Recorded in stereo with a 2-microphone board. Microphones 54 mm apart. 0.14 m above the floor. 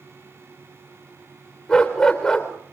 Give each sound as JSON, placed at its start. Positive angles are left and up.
{"t": 1.7, "sound": "a dog barking", "side_deg": 15, "distance_m": 3.5}